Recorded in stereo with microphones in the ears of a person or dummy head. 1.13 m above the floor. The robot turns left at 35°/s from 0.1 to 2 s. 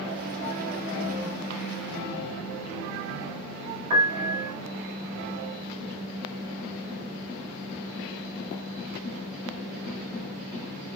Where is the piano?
25° right (ahead or behind), 3 m.